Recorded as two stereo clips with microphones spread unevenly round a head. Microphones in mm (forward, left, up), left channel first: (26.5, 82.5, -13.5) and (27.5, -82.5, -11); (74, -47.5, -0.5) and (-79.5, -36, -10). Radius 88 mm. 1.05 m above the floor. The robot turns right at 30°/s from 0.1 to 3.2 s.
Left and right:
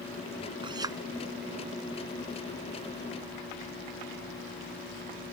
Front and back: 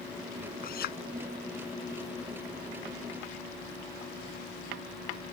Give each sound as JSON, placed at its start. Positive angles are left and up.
{"t": 0.6, "sound": "a clink", "azimuth_deg": -30}